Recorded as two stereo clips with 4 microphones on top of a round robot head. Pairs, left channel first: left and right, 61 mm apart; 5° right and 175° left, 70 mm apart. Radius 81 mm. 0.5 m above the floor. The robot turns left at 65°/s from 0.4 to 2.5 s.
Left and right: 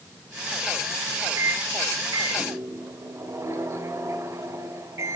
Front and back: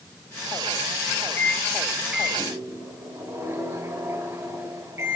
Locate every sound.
1.4 s a microwave: 55° right, 2.5 m; by 5.2 s 130° right, 2.5 m